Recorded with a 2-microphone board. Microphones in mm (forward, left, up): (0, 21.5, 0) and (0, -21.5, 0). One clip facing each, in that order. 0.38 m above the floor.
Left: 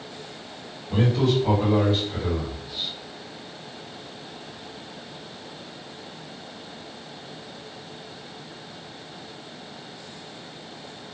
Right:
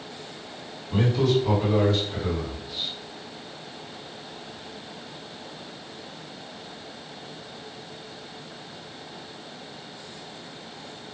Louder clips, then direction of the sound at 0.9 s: Even; 35° left (ahead or behind).